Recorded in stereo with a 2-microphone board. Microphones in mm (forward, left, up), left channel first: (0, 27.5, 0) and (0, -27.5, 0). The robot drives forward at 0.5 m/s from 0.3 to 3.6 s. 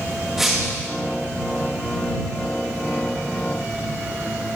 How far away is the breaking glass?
About 8.5 m.